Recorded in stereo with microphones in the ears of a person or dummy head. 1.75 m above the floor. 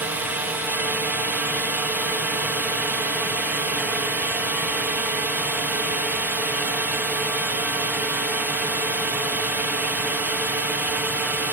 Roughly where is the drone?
Centre.